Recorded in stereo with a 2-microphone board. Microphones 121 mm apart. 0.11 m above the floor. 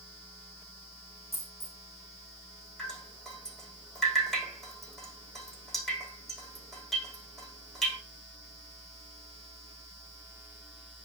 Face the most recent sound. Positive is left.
turn(degrees=0)  # may be behind; listen again after turning